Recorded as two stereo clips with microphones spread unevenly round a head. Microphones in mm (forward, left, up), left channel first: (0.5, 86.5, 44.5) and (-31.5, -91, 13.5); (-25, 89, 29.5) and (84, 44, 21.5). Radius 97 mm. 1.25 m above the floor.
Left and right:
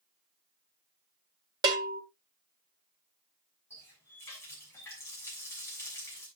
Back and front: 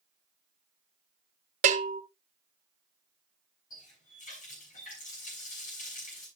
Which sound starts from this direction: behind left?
A running tap, at 3.7 s.